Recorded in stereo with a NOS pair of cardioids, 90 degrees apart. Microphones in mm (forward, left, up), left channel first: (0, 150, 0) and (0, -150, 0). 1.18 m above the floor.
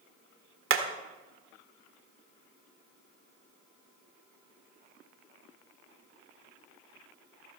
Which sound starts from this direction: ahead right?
Hammering, at 0.7 s.